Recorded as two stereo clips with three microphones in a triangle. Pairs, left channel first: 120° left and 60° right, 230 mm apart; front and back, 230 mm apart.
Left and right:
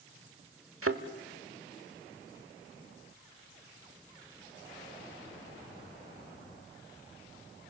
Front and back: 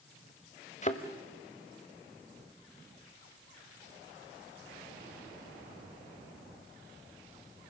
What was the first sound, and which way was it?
A thud, 55° right.